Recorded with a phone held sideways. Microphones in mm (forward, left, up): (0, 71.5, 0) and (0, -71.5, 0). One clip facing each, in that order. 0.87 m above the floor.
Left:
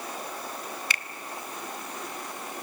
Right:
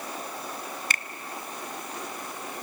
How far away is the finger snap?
About 0.7 m.